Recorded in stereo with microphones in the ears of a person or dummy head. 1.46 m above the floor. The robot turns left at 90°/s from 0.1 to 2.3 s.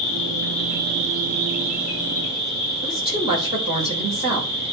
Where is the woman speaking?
25° right (ahead or behind), 6.5 m.